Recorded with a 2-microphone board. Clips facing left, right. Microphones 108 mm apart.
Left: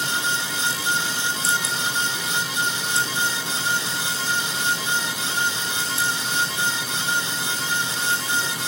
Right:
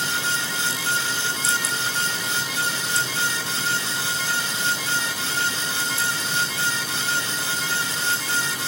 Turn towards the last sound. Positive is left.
No sound to turn to.